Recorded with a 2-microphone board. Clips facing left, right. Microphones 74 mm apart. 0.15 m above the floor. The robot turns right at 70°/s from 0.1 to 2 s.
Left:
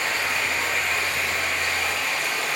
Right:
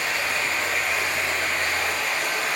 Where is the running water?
140° left, 1.0 m; by 2.6 s 90° right, 1.0 m.